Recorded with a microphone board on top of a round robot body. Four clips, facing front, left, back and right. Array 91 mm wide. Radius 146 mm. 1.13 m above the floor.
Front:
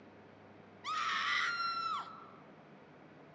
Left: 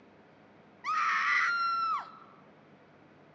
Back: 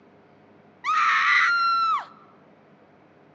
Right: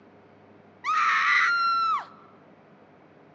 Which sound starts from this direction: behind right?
A scream, at 0.8 s.